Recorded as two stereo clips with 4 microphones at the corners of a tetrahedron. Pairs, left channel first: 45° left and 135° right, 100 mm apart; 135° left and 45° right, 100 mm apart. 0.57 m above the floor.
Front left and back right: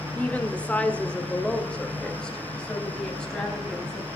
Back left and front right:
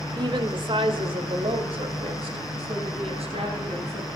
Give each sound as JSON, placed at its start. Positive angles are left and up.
{"t": 0.1, "sound": "a woman speaking", "azimuth_deg": -25, "distance_m": 1.4}